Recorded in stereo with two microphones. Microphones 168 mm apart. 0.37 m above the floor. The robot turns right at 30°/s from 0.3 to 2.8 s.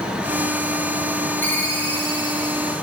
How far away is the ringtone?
About 2.0 m.